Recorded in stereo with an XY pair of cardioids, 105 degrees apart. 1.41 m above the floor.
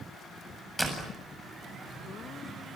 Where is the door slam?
5° right, 7.5 m.